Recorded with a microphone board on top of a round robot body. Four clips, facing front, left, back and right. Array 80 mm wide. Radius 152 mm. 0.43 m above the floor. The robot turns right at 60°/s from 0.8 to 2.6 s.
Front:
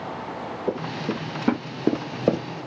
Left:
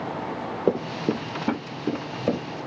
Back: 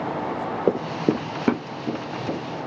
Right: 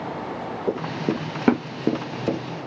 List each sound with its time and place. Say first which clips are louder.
0.7 s running footsteps: left 1 dB, back 6 dB; 145° left, 0.8 m; by 2.4 s 15° left, 1.0 m